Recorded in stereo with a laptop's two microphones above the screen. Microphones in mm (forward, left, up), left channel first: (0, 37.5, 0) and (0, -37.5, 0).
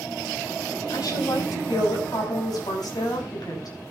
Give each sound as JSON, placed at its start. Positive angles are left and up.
{"t": 0.9, "sound": "a woman speaking", "side_deg": 60, "distance_m": 7.0}